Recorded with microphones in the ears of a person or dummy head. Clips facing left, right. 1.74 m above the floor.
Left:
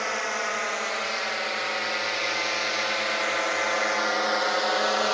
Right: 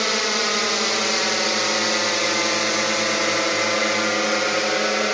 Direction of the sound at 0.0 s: 55° right (ahead or behind).